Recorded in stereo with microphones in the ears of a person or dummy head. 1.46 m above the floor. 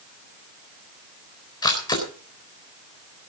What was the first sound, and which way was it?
A camera shutter, 20° left (ahead or behind).